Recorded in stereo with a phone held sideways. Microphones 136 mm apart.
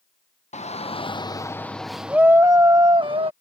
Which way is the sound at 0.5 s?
55° left (ahead or behind).